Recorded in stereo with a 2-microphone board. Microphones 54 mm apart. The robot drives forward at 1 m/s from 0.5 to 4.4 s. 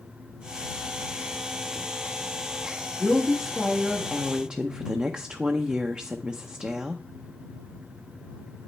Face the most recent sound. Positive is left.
turn(degrees=-20)  # may be behind; listen again after turning